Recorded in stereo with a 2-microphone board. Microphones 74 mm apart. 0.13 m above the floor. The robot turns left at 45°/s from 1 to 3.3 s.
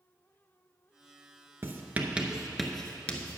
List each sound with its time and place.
1.6 s writing: 35° right (ahead or behind), 0.8 m; by 3.4 s 25° left (ahead or behind), 0.8 m